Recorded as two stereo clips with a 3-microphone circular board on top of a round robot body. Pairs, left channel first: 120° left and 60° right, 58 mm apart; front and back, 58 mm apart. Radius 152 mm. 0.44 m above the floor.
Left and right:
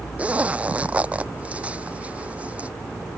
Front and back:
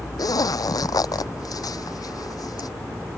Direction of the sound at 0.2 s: 10° left.